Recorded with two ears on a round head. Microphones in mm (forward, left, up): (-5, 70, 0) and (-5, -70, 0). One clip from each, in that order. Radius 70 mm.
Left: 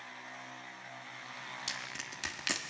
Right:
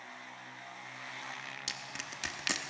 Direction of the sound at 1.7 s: 5° right (ahead or behind).